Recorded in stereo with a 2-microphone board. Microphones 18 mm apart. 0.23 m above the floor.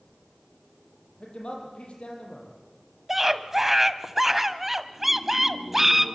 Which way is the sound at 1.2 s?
75° left (ahead or behind).